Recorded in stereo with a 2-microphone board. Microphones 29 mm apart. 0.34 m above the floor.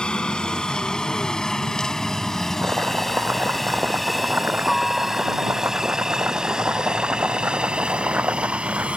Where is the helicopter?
35° left (ahead or behind); by 9.0 s 40° right (ahead or behind).